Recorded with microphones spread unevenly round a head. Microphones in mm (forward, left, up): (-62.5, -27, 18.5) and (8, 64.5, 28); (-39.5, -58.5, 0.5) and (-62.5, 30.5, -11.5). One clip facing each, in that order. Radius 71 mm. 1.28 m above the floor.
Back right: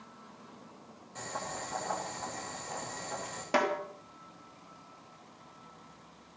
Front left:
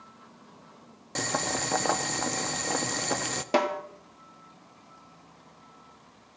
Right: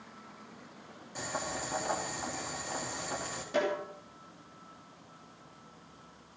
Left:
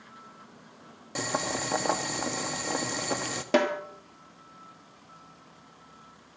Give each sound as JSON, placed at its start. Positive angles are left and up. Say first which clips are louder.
{"t": 1.1, "sound": "boiling", "louder": "front left 9 dB, left 6 dB", "azimuth_deg": 55, "distance_m": 1.3}
{"t": 3.5, "sound": "a snare drum", "louder": "front left 3 dB, left 6 dB", "azimuth_deg": 120, "distance_m": 2.5}